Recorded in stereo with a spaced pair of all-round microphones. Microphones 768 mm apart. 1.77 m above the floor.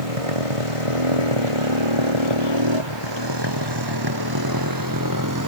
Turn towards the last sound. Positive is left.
turn(degrees=-20)  # may be behind; listen again after turning